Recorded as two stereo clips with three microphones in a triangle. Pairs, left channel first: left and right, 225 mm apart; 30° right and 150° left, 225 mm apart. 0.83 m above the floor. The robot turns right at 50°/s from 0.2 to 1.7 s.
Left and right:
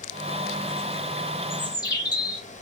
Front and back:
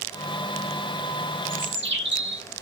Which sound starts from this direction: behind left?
A bird, at 1.5 s.